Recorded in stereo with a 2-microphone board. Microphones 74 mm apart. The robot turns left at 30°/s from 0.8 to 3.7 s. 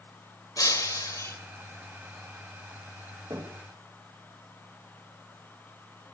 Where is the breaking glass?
55° left (ahead or behind), 2 m; by 1.4 s 40° left (ahead or behind), 2 m.